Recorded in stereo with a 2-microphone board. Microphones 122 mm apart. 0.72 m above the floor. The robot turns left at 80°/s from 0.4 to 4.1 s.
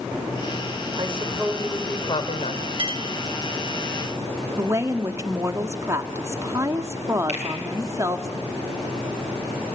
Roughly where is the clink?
Right.